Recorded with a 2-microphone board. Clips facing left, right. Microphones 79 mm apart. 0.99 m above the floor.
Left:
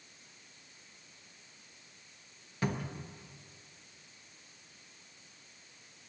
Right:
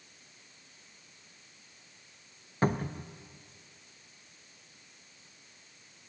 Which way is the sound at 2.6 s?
40° right (ahead or behind).